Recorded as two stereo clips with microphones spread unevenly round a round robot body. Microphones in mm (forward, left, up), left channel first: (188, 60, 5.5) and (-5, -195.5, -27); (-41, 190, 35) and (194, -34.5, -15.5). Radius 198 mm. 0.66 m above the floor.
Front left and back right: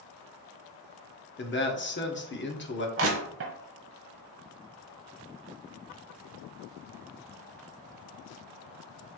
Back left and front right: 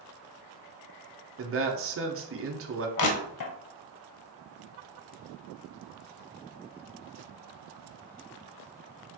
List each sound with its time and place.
1.4 s a man speaking: 5° right, 1.4 m
3.0 s crushing: 175° left, 0.9 m